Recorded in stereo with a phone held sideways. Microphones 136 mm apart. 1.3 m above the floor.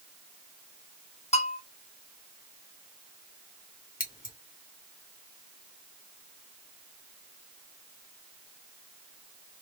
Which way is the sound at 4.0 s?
80° left.